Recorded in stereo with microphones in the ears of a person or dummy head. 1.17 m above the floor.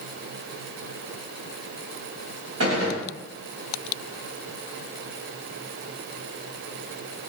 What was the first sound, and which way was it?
A gunshot, 70° right (ahead or behind).